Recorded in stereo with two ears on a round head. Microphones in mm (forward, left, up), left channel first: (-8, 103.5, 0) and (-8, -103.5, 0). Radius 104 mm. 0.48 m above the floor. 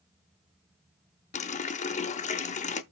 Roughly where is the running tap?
Left.